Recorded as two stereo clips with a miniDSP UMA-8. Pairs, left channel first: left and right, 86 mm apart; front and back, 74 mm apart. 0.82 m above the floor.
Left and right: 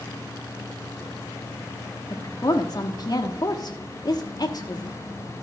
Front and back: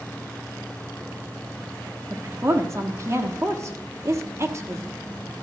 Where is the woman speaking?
130° left, 1.1 m.